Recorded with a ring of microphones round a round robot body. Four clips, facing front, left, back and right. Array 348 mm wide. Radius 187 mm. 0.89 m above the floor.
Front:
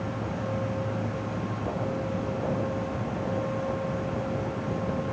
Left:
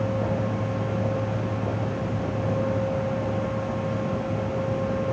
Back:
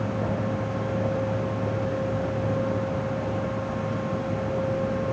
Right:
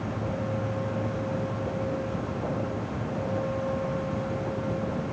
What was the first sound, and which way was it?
Only background noise.